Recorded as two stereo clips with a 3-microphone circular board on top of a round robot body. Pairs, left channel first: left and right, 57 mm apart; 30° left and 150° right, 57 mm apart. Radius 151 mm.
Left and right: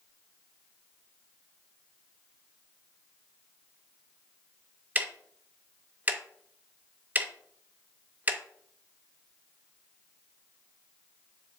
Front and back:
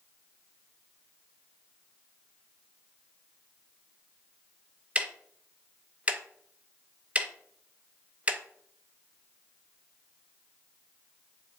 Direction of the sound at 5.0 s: 110° right.